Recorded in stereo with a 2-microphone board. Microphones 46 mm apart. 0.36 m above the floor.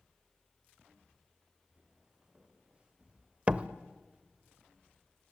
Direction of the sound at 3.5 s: 35° right (ahead or behind).